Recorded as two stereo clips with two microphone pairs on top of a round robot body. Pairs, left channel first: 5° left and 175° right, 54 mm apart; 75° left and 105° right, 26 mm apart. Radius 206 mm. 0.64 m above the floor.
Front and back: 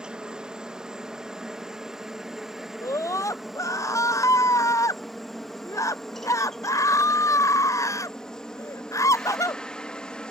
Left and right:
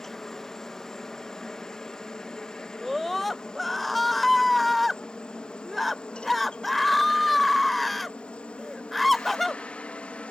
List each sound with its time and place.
0.0 s a helicopter: 130° left; by 10.3 s 70° left
2.8 s a scream: 10° right